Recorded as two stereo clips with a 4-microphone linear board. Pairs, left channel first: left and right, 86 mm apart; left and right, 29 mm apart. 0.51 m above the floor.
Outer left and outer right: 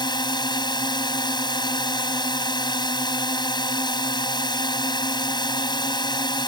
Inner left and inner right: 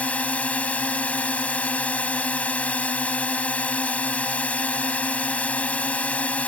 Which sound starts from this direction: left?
A drone, at 0.0 s.